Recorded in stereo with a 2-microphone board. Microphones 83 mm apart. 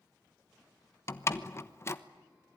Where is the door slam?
35° left (ahead or behind), 1.1 m.